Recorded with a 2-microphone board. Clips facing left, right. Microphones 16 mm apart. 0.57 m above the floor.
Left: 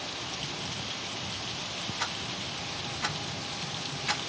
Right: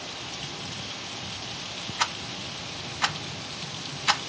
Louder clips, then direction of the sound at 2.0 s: Right 8 dB; 50° right (ahead or behind).